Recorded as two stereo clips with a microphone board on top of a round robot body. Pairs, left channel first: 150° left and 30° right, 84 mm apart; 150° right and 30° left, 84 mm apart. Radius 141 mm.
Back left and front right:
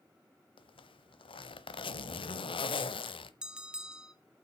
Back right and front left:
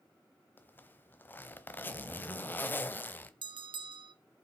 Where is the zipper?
140° left, 0.9 m.